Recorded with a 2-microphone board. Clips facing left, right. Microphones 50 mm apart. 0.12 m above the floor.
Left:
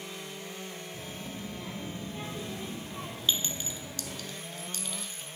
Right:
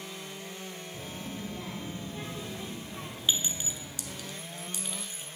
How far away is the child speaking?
About 2.5 m.